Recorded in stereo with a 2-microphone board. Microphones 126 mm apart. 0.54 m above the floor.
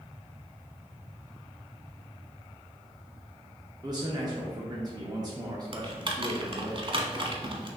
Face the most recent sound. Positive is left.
turn(degrees=-45)  # may be behind; listen again after turning